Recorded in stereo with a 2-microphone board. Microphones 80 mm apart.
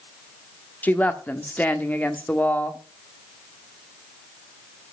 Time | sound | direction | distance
0.8 | a woman speaking | 20° left (ahead or behind) | 1.3 m